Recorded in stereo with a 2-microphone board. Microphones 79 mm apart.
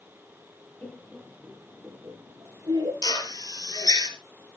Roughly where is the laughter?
Centre.